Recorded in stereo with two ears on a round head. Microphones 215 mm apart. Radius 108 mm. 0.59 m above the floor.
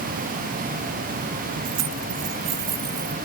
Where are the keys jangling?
75° right (ahead or behind); by 3.2 s 60° right (ahead or behind).